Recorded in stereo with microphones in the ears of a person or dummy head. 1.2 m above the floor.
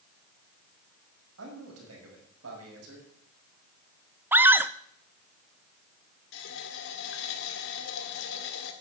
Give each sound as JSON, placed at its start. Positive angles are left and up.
{"t": 1.4, "sound": "a man speaking", "side_deg": -90, "distance_m": 6.0}
{"t": 4.3, "sound": "a scream", "side_deg": -10, "distance_m": 0.6}
{"t": 6.3, "sound": "a running tap", "side_deg": 70, "distance_m": 2.0}